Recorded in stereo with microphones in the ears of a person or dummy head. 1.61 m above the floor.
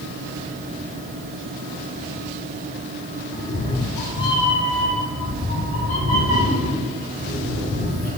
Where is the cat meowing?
35° left (ahead or behind), 1.4 m; by 8.1 s 70° left (ahead or behind), 3.5 m.